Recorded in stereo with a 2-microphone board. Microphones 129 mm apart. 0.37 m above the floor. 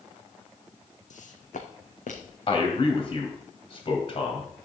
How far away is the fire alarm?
No fire alarm in this recording.